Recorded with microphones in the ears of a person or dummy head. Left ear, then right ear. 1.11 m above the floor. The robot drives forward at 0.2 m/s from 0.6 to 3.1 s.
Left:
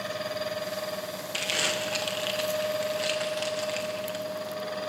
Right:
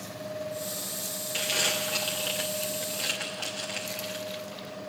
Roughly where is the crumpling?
Centre.